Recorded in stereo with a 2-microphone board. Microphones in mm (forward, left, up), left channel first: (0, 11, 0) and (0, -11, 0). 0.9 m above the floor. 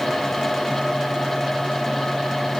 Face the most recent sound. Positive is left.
No sound to turn to.